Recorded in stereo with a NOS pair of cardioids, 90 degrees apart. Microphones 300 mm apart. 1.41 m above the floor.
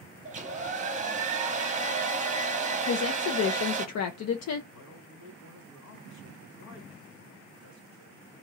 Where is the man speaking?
70° left, 2 m.